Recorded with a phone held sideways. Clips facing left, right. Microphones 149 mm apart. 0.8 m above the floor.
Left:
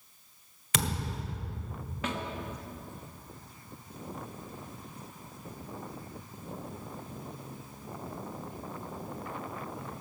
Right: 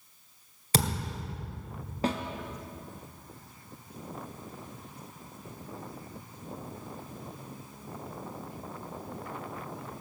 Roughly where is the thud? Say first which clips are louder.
Right 3 dB; right.